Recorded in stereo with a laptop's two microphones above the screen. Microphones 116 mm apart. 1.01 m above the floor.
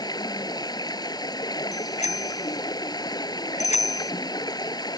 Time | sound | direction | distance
0.0 | running water | 35° left (ahead or behind) | ?
1.7 | a bicycle bell | 85° left | ?